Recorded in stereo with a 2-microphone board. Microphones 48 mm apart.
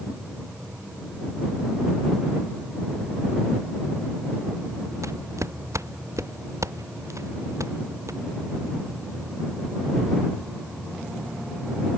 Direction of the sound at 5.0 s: 80° right.